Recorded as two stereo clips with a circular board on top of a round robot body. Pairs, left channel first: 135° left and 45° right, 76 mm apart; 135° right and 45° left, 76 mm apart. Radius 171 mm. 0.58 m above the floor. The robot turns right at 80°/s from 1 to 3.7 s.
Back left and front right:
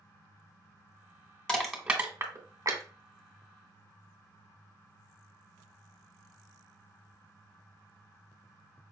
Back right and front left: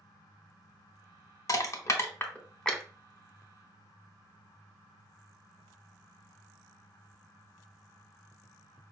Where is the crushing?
150° right, 1.3 m; by 2.8 s 40° right, 1.3 m.